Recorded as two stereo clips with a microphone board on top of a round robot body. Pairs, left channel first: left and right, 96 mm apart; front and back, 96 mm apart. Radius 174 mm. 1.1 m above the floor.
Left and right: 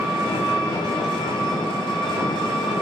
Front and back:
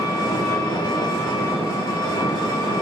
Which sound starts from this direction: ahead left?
An engine running, at 0.0 s.